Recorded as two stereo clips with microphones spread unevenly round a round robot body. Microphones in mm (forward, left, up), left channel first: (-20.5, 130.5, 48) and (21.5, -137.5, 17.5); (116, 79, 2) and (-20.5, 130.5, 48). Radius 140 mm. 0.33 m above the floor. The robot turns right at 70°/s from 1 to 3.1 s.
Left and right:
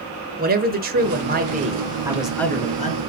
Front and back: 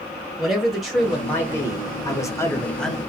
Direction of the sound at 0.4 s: 90° right.